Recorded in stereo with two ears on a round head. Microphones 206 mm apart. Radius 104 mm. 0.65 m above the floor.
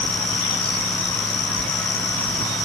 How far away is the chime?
No chime in this recording.